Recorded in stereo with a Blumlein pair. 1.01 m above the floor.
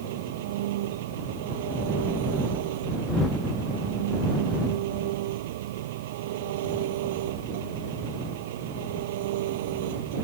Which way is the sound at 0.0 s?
55° right.